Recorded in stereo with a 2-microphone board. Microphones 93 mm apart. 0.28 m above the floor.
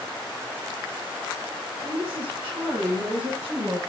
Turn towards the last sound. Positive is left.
turn(degrees=-10)  # may be behind; listen again after turning